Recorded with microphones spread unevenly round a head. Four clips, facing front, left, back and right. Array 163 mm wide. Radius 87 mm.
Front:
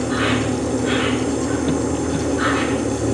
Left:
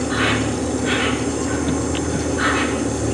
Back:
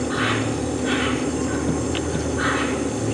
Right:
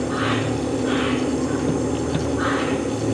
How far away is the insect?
About 6 m.